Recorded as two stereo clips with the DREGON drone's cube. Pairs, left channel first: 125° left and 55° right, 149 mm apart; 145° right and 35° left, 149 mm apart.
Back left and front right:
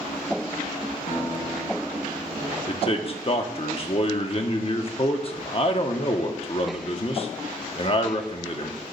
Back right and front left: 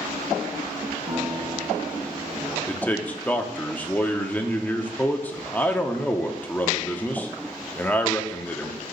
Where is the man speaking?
140° left, 1.0 m.